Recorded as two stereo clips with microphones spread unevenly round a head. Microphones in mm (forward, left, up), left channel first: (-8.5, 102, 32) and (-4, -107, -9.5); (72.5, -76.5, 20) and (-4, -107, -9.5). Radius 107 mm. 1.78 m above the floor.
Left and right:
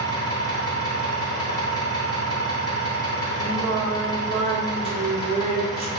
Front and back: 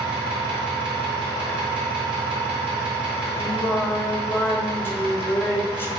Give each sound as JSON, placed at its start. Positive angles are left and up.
{"t": 0.0, "sound": "an engine running", "azimuth_deg": 160, "distance_m": 1.5}
{"t": 3.4, "sound": "singing", "azimuth_deg": -20, "distance_m": 0.7}